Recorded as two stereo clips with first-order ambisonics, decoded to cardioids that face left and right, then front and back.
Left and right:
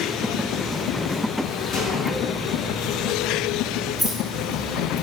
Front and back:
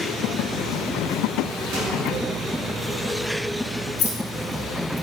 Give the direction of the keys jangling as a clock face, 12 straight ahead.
12 o'clock.